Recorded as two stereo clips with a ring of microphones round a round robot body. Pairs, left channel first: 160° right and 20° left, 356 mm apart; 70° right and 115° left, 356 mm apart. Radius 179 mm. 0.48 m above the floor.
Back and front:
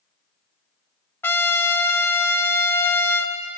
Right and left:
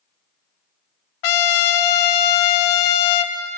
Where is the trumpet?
75° right, 0.9 m.